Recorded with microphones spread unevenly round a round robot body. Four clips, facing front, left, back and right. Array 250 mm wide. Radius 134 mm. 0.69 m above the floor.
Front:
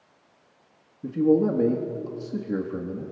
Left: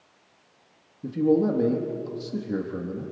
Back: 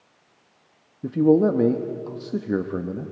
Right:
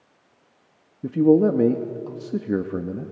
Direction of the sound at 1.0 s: 110° right.